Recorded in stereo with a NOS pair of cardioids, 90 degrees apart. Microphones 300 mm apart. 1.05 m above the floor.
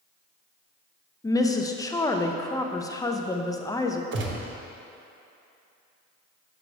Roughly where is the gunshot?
Ahead right.